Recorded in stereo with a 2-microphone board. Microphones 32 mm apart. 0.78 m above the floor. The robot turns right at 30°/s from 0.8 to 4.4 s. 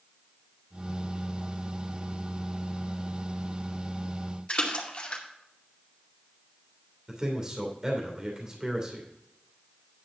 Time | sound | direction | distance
4.5 | a splash | 35° left (ahead or behind) | 2 m
7.1 | a man speaking | 25° right (ahead or behind) | 2.5 m